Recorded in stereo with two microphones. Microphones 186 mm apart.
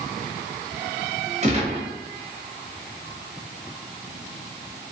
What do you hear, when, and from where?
1.4 s a gunshot: 35° right (ahead or behind), 1.0 m